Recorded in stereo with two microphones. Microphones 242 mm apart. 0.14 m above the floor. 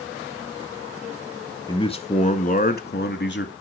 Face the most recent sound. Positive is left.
turn(degrees=45)  # may be behind; listen again after turning